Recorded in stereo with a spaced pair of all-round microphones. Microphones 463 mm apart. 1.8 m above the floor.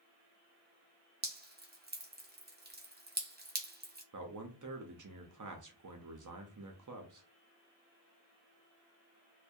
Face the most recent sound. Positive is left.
turn(degrees=-45)  # may be behind; listen again after turning